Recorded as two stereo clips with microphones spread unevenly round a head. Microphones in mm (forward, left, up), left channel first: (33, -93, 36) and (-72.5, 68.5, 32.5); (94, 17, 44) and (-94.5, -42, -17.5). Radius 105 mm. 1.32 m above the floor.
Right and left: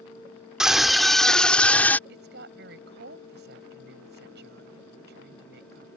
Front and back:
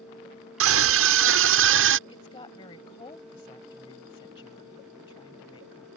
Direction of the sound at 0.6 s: 150° right.